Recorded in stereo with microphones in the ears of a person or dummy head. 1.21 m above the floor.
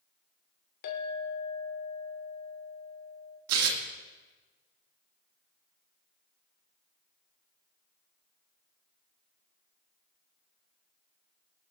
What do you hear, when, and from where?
0.8 s a clink: 55° left (ahead or behind), 2 m
3.5 s tearing paper: 85° right, 2.0 m